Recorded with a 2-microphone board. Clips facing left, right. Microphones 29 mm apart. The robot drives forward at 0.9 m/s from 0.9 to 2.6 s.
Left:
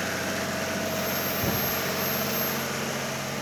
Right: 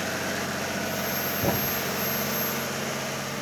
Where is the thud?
80° right; by 3.4 s 75° right (ahead or behind).